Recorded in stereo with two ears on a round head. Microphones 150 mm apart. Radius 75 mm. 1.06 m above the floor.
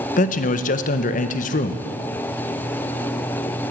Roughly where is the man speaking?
Left.